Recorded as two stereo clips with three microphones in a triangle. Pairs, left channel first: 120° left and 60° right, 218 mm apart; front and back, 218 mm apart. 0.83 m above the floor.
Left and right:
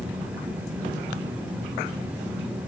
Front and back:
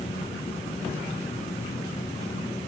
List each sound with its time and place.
Only background noise.